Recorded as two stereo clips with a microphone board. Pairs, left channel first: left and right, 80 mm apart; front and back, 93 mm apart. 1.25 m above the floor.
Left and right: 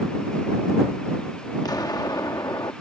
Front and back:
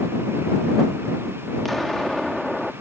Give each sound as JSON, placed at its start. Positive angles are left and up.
{"t": 1.6, "sound": "an explosion", "azimuth_deg": 85}